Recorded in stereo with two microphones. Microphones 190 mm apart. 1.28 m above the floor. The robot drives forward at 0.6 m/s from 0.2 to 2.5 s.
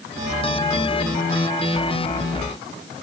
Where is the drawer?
I don't hear a drawer.